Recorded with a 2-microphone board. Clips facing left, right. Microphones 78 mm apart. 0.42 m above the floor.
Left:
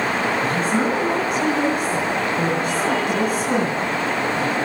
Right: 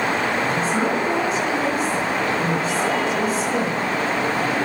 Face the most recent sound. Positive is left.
turn(degrees=55)  # may be behind; listen again after turning